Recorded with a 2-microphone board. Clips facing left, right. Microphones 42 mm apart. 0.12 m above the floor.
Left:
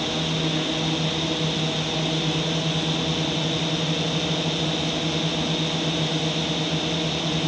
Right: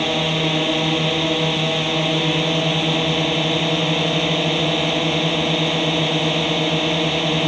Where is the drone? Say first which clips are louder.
Right 6 dB; 45° right (ahead or behind).